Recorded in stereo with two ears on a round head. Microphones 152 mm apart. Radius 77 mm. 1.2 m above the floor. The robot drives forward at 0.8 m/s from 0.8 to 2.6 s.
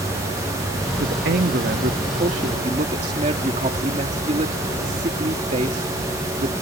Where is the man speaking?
80° right; by 6.5 s 45° right (ahead or behind).